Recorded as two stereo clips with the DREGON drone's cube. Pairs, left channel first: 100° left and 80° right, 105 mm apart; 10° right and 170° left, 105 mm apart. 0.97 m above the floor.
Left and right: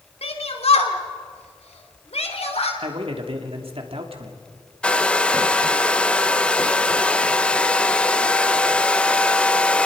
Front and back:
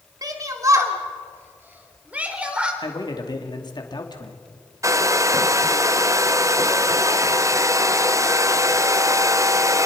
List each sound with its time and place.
0.2 s a shout: 115° left, 2.5 m; by 2.7 s 90° left, 3.5 m
2.8 s a man speaking: 55° right, 2.5 m
4.8 s a hair dryer: 165° left, 0.6 m